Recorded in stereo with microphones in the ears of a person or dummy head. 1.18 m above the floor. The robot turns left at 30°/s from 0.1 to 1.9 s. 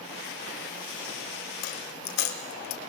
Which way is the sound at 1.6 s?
50° left (ahead or behind).